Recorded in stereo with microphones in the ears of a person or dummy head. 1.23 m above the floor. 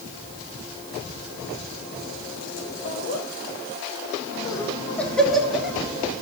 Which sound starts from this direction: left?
Laughter, at 2.9 s.